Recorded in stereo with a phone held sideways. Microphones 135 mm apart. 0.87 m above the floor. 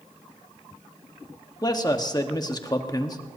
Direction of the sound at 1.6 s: 30° left (ahead or behind).